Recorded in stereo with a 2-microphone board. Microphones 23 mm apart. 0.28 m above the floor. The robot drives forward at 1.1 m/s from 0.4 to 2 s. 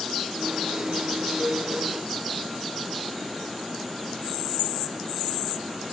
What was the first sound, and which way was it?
A flute, 25° right (ahead or behind).